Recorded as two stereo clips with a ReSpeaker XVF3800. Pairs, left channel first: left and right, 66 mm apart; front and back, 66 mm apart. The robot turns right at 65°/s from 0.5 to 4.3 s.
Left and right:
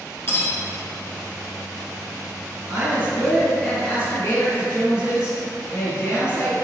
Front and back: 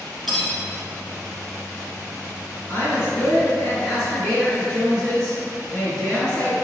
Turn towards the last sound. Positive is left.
turn(degrees=60)